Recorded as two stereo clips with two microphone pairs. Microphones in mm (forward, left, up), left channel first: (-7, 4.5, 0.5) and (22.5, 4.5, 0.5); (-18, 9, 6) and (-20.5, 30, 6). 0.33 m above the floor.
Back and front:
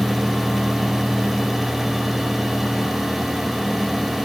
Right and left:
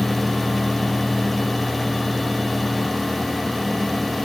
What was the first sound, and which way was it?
Only background noise.